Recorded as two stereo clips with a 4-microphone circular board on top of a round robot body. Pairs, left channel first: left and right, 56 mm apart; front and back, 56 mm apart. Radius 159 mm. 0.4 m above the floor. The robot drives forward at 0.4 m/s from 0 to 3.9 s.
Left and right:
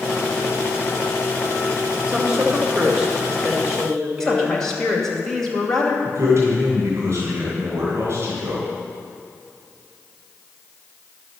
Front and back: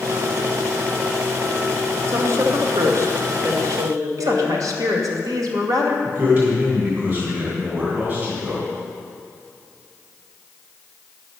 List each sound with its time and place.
2.1 s a woman speaking: 160° right, 1.4 m; by 5.2 s 170° right, 2.0 m
4.2 s a woman speaking: 170° left, 2.5 m
6.0 s a man speaking: 125° right, 3 m